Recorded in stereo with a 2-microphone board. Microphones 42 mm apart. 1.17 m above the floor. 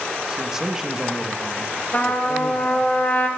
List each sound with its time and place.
0.3 s a man speaking: 15° right (ahead or behind), 1.0 m
1.9 s a trumpet: 30° left (ahead or behind), 1.6 m